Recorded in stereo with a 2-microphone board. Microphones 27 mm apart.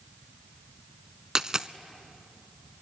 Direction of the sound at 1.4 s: 25° right (ahead or behind).